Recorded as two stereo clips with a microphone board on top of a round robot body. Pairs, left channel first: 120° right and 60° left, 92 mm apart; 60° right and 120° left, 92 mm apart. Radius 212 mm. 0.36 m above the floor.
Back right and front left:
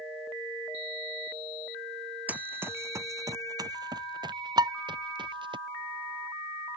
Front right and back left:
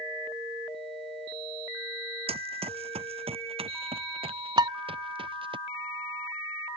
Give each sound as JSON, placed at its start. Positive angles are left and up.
{"t": 2.3, "sound": "running footsteps", "azimuth_deg": 135}
{"t": 4.6, "sound": "dishes clattering", "azimuth_deg": 90}